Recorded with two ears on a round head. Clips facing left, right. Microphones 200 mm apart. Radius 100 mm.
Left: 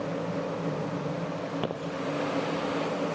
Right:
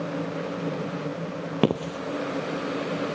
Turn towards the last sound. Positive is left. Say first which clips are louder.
# right 8 dB
turn(degrees=-60)  # may be behind; listen again after turning